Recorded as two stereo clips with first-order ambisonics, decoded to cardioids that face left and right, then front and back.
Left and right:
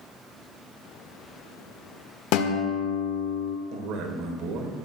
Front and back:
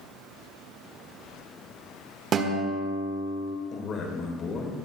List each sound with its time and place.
2.3 s a guitar: 120° left, 1.2 m
3.7 s a man speaking: 60° right, 3 m